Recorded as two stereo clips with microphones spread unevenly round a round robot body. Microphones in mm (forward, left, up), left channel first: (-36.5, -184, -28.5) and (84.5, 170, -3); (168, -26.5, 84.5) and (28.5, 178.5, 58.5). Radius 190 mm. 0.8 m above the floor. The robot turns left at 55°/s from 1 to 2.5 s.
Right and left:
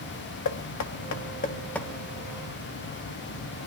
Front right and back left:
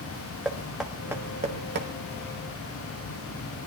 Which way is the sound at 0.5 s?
150° right.